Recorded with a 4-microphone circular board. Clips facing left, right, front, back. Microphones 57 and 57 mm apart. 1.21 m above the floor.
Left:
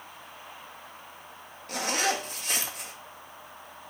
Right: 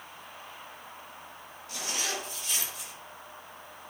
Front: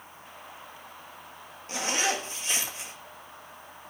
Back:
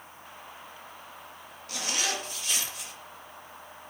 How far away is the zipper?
About 2.0 m.